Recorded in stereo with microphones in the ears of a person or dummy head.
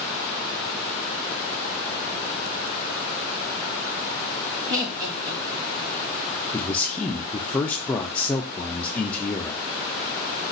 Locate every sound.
4.7 s laughter: 15° right (ahead or behind), 3 m
6.5 s a man speaking: 20° left (ahead or behind), 0.5 m